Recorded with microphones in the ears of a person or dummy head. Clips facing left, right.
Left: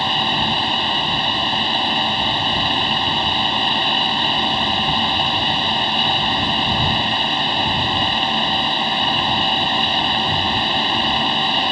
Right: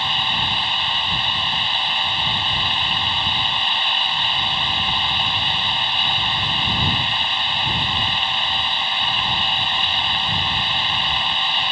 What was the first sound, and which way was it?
A fan, 35° left (ahead or behind).